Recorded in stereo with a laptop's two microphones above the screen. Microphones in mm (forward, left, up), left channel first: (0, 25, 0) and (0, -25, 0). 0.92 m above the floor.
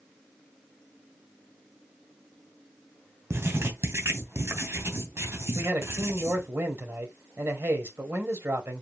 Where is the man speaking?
50° right (ahead or behind), 4 m.